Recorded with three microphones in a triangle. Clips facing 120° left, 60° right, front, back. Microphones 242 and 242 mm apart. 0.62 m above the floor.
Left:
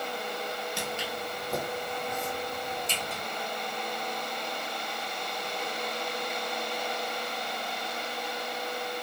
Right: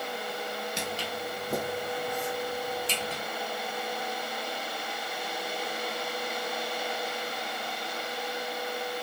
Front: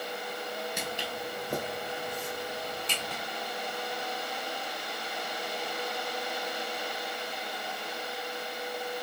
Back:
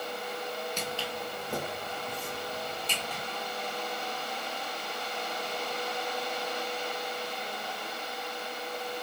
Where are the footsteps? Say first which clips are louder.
Even, back 1 dB; 60° right, 0.6 m.